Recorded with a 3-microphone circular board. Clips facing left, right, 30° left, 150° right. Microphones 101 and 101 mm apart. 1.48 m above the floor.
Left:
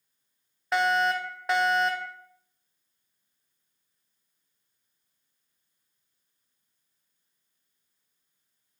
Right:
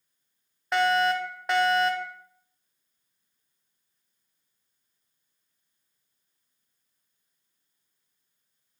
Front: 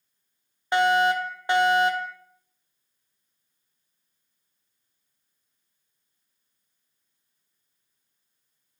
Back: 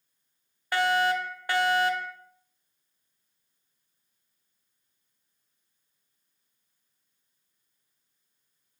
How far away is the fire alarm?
About 0.9 m.